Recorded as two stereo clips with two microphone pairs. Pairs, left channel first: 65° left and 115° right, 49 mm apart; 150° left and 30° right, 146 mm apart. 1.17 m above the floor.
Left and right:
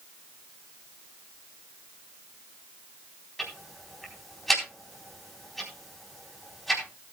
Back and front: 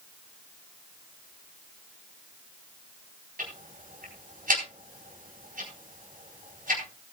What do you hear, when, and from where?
3.4 s ticking: 25° right, 4 m